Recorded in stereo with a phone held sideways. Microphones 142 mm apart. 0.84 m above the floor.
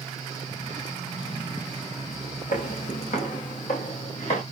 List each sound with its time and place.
0.0 s a fan: 50° left (ahead or behind), 6.5 m
2.5 s footsteps: 65° left (ahead or behind), 3.5 m; by 4.4 s 50° left (ahead or behind), 5 m